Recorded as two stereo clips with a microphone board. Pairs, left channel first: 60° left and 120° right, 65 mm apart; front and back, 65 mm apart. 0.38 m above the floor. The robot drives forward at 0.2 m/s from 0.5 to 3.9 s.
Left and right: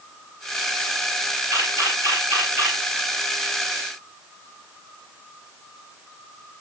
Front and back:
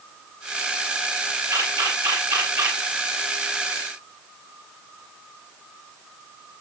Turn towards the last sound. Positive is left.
turn(degrees=-165)